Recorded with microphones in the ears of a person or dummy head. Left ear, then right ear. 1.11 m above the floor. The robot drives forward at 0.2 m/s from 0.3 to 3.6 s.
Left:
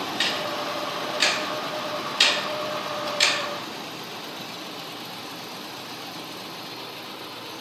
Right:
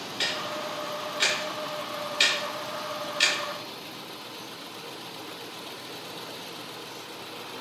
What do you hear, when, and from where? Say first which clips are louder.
0.2 s ticking: left 3 dB; 5° left (ahead or behind), 1.2 m